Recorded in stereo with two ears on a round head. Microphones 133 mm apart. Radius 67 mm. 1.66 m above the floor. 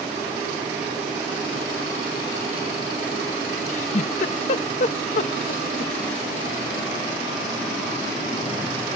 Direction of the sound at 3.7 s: 50° left (ahead or behind).